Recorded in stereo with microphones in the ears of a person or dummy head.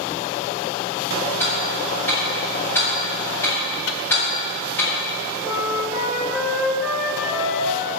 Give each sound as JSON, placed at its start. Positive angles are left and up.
{"t": 1.4, "sound": "ticking", "side_deg": 0, "distance_m": 3.0}
{"t": 3.9, "sound": "a microwave", "side_deg": 65, "distance_m": 0.7}
{"t": 5.5, "sound": "a flute", "side_deg": -20, "distance_m": 1.1}